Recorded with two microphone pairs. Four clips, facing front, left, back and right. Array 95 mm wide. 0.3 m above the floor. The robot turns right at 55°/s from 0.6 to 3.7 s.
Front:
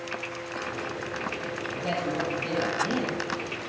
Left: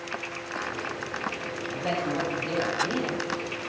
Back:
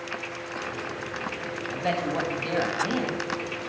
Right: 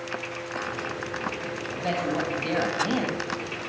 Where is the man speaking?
Straight behind, 1.8 m; by 3.2 s 95° right, 1.8 m.